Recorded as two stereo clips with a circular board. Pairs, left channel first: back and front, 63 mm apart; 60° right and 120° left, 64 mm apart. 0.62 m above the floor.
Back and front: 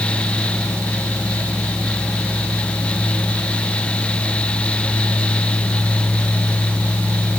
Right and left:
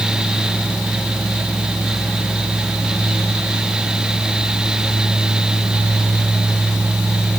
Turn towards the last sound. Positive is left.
No sound to turn to.